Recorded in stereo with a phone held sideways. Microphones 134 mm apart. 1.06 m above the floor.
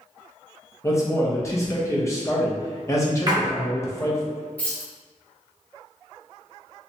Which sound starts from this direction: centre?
Keys jangling, at 4.6 s.